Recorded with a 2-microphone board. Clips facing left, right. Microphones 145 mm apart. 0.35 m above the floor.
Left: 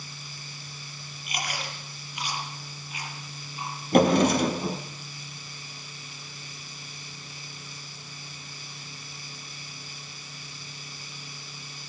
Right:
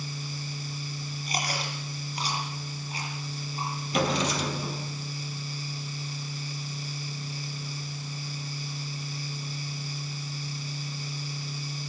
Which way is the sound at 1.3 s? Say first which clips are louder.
Right 2 dB; 35° right (ahead or behind).